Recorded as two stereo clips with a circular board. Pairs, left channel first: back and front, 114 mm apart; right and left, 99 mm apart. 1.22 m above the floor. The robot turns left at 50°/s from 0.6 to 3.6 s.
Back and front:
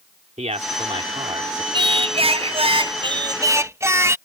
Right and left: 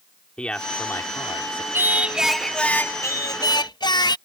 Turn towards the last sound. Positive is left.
turn(degrees=-60)